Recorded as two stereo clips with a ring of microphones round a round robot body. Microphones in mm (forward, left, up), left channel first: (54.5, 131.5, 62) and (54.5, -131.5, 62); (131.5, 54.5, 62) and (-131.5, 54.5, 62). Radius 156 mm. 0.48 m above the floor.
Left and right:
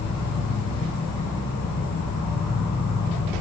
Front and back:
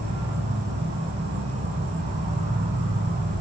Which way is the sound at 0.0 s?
130° left.